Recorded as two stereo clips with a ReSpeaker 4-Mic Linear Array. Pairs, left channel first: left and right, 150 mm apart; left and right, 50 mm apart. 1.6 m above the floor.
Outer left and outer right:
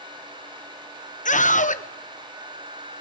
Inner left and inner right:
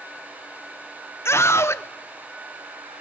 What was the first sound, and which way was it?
A scream, 60° left (ahead or behind).